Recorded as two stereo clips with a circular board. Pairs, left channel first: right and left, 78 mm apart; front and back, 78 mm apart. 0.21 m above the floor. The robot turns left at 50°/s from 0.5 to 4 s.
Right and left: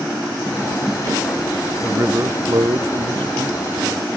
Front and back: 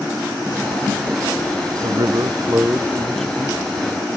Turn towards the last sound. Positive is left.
turn(degrees=50)